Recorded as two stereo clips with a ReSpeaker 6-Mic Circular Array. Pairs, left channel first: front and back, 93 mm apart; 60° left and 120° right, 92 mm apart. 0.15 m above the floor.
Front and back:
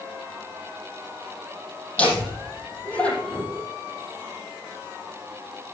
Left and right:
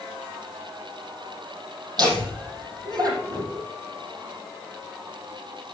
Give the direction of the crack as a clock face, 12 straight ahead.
I don't hear a crack.